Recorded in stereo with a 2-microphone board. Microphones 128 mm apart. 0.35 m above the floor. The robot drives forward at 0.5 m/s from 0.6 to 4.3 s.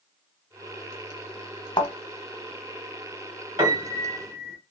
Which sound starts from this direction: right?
A piano, at 3.6 s.